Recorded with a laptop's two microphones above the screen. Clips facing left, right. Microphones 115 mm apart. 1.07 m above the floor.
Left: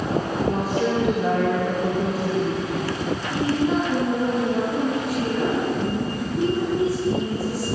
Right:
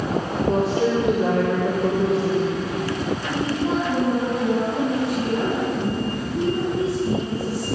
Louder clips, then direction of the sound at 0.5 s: Right 4 dB; 30° right (ahead or behind).